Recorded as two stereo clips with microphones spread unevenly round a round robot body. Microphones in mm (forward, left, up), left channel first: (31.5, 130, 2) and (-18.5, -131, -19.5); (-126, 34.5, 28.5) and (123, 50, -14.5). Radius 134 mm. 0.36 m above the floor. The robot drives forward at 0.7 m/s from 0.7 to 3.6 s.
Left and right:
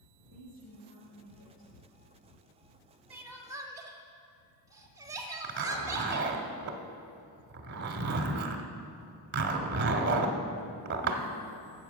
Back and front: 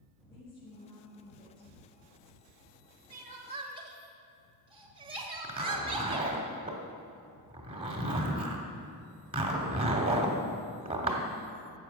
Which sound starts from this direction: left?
A woman speaking, at 0.3 s.